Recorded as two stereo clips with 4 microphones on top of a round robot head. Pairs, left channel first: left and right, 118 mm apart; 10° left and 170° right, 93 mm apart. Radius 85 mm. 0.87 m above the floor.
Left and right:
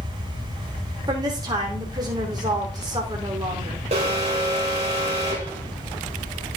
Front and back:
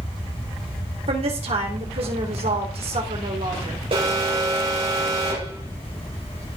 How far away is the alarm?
About 4.5 m.